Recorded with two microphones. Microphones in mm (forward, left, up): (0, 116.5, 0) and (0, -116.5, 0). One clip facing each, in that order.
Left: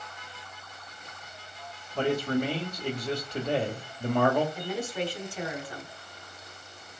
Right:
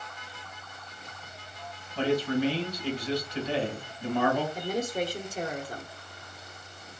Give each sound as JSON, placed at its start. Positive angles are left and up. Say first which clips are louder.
{"t": 1.9, "sound": "a man speaking", "louder": "even", "side_deg": 50, "distance_m": 1.8}
{"t": 4.5, "sound": "a woman speaking", "louder": "right 2 dB", "side_deg": -45, "distance_m": 1.3}